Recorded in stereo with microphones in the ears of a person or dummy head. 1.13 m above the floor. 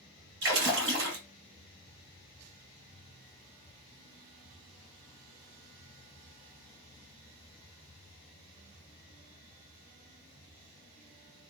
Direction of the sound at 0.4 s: 60° right (ahead or behind).